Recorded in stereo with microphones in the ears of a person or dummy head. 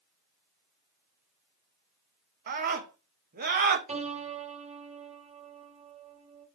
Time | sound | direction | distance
2.5 | a scream | 50° right (ahead or behind) | 1.6 m
3.9 | a piano | 35° right (ahead or behind) | 3.5 m